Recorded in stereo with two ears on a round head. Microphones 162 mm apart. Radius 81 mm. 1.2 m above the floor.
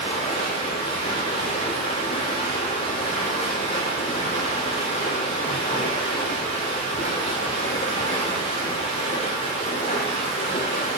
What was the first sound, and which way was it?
Running water, 35° left (ahead or behind).